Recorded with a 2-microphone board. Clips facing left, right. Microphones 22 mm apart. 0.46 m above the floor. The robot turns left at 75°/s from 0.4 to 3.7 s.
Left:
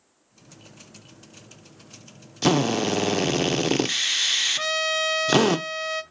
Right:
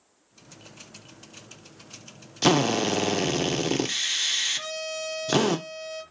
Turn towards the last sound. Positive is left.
turn(degrees=60)  # may be behind; listen again after turning